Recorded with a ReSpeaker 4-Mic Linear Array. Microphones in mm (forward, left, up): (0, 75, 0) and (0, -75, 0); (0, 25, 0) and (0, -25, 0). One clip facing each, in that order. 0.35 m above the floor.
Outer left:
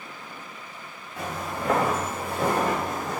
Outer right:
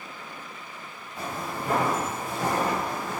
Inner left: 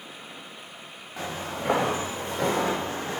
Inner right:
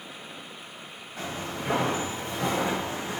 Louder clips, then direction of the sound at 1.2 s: Outer left 1 dB, inner left 2 dB; 80° left.